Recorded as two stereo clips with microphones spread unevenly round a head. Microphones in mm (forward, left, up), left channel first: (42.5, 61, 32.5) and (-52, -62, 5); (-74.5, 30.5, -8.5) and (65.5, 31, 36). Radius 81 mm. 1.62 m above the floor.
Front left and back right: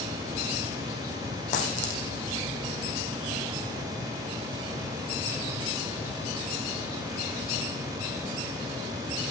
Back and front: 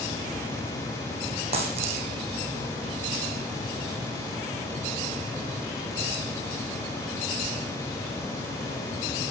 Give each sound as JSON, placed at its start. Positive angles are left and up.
{"t": 1.5, "sound": "a dropped coin", "azimuth_deg": 25, "distance_m": 3.5}